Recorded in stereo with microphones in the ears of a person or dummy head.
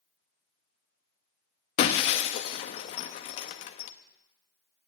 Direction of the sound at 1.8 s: 45° left (ahead or behind).